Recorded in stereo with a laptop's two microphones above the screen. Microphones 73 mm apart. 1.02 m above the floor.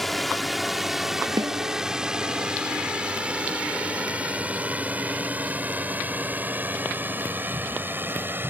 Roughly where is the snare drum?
Right.